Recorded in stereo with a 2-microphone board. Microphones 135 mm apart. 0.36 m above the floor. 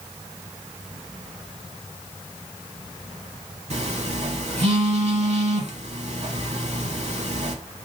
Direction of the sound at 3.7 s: 55° right (ahead or behind).